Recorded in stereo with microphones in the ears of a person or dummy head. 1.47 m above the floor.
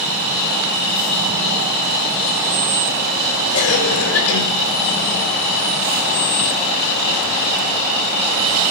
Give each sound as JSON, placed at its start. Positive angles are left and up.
{"t": 3.5, "sound": "a cough", "side_deg": 75, "distance_m": 4.5}